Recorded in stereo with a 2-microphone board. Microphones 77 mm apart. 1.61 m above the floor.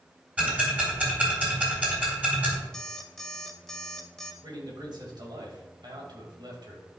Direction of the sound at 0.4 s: 20° right (ahead or behind).